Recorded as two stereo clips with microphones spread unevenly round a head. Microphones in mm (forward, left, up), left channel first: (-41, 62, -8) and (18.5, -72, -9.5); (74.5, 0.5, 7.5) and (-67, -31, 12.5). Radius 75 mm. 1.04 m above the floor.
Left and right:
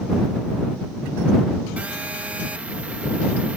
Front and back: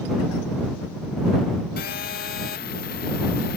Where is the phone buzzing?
15° left.